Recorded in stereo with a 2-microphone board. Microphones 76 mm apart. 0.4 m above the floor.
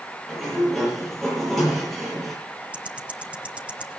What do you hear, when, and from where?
0.3 s a sliding door: 5° left (ahead or behind), 9.5 m
2.7 s ticking: 20° right (ahead or behind), 1.3 m